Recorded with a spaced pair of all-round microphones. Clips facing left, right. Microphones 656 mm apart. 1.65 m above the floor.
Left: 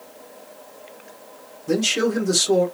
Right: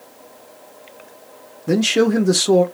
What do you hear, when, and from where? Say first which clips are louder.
1.7 s a man speaking: right 5 dB; 85° right, 1.4 m